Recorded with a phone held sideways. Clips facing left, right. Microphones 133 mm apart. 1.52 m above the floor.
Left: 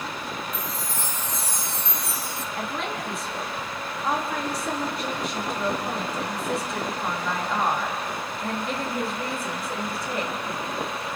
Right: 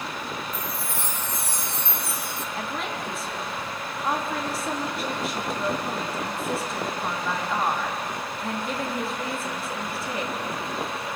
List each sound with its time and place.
0.5 s a chime: 60° right (ahead or behind), 1.2 m
2.5 s a woman speaking: centre (ahead or behind), 3 m